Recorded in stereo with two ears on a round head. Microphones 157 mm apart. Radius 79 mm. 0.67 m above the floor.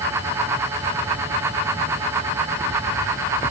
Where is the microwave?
I don't hear a microwave.